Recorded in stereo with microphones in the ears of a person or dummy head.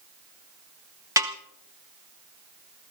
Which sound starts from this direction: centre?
A snare drum, at 1.2 s.